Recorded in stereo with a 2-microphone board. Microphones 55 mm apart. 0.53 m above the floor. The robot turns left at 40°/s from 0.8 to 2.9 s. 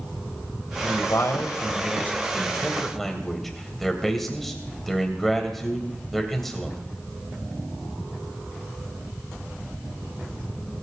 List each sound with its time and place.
0.8 s a man speaking: 70° left (ahead or behind), 3 m; by 6.8 s 5° left (ahead or behind), 3 m